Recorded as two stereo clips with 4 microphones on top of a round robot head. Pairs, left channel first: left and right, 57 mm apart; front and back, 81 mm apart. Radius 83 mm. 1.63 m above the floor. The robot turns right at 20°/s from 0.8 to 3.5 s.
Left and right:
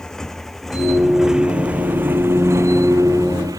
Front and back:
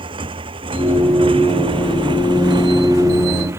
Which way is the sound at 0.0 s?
175° left.